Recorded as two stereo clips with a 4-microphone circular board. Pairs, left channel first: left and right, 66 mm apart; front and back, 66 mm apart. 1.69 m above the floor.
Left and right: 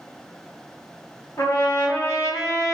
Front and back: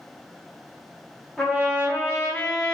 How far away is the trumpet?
About 2.5 m.